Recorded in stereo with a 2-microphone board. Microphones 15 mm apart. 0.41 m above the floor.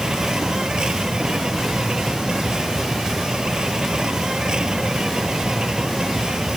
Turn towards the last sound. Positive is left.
turn(degrees=-55)  # may be behind; listen again after turning